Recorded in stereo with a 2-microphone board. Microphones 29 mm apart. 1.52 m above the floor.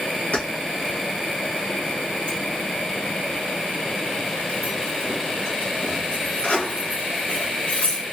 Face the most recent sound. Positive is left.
turn(degrees=50)  # may be behind; listen again after turning